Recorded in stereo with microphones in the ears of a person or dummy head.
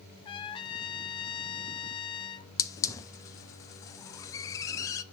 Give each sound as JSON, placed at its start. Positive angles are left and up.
{"t": 0.2, "sound": "a trumpet", "side_deg": 20, "distance_m": 0.6}
{"t": 2.6, "sound": "a hiss", "side_deg": 15, "distance_m": 0.6}